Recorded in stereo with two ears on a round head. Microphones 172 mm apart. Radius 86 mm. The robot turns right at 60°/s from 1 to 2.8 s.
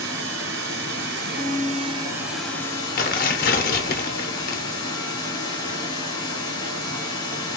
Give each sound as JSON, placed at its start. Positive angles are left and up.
{"t": 0.0, "sound": "running water", "azimuth_deg": -85, "distance_m": 1.5}
{"t": 1.4, "sound": "a violin", "azimuth_deg": -175, "distance_m": 1.7}
{"t": 3.0, "sound": "tearing paper", "side_deg": 45, "distance_m": 0.6}